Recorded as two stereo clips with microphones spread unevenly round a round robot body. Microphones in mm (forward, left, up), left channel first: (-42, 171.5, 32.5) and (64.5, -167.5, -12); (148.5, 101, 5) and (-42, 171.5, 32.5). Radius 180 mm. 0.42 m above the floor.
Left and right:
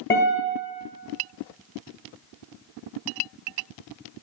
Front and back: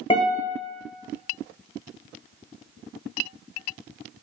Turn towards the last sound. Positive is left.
turn(degrees=45)